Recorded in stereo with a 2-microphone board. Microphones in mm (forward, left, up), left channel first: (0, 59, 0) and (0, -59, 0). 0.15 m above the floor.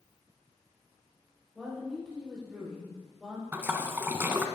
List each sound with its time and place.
1.6 s a woman speaking: centre (ahead or behind), 6 m
3.5 s a splash: 20° right (ahead or behind), 1.2 m